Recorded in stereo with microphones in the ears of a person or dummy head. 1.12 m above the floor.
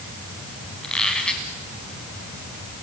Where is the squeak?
Centre (ahead or behind), 1.0 m.